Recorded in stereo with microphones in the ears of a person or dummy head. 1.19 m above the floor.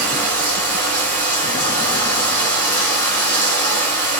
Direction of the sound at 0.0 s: 10° left (ahead or behind).